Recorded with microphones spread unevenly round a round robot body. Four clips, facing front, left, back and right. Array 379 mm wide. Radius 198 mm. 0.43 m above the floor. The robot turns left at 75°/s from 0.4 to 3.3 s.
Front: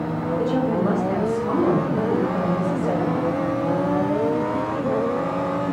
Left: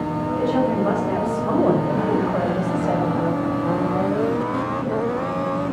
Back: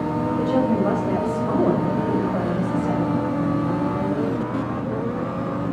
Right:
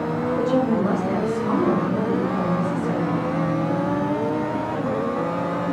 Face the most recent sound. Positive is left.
turn(degrees=15)